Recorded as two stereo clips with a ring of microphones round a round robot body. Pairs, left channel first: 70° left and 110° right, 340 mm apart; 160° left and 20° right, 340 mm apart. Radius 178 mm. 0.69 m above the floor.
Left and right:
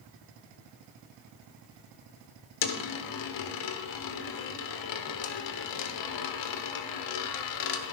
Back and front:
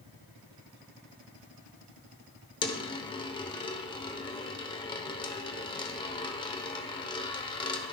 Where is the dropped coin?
80° left, 0.9 m.